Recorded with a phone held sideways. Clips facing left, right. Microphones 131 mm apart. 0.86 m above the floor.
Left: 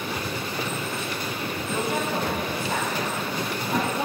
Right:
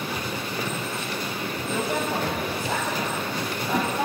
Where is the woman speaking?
70° right (ahead or behind), 5.5 m; by 4.0 s 80° right, 6 m.